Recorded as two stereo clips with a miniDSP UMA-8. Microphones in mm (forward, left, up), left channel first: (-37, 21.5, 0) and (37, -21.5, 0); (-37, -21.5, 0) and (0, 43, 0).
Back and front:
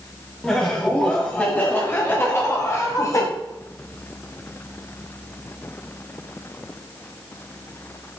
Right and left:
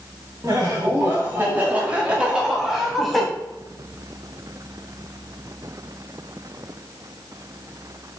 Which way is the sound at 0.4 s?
75° left.